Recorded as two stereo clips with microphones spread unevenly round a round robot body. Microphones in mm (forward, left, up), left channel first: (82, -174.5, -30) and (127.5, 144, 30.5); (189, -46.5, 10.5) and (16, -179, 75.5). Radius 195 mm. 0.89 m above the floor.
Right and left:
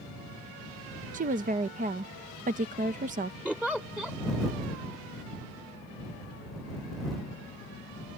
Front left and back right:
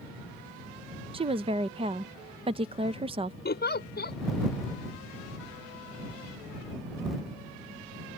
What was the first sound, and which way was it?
A woman speaking, 145° left.